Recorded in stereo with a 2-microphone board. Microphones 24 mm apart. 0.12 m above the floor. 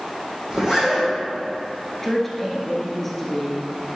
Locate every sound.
0.5 s a zipper: 35° right (ahead or behind), 3 m
2.0 s a woman speaking: 10° left (ahead or behind), 1.5 m